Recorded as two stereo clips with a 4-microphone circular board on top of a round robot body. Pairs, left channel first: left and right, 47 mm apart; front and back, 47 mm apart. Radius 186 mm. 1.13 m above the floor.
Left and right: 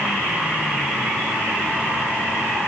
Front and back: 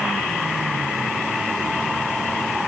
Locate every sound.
Only background noise.